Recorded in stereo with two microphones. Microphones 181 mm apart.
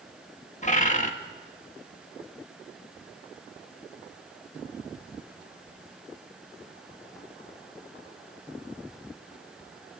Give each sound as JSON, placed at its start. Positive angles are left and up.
{"t": 0.6, "sound": "a bird", "side_deg": 40, "distance_m": 1.8}